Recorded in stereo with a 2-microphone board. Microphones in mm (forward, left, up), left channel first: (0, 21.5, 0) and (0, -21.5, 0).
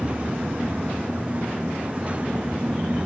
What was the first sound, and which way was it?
Only background noise.